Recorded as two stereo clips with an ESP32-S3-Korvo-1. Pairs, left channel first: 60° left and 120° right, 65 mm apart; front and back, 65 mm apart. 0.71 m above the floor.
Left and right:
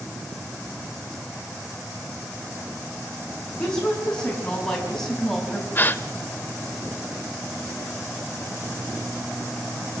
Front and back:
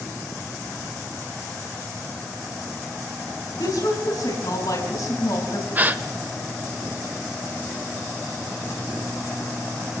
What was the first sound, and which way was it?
A woman speaking, 20° right.